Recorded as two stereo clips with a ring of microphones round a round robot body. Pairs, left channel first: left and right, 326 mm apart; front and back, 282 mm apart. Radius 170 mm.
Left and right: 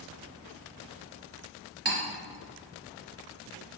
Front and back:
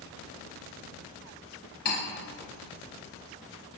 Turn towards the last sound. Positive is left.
turn(degrees=-30)